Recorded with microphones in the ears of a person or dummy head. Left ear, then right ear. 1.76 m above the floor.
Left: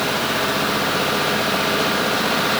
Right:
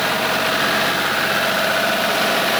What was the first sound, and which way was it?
Only background noise.